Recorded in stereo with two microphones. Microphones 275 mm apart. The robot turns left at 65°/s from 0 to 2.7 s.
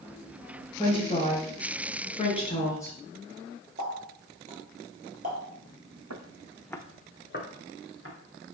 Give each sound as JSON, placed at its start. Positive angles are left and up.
{"t": 0.8, "sound": "a woman speaking", "side_deg": 15, "distance_m": 1.6}
{"t": 3.8, "sound": "a running tap", "side_deg": -25, "distance_m": 1.3}
{"t": 6.1, "sound": "footsteps", "side_deg": -70, "distance_m": 0.7}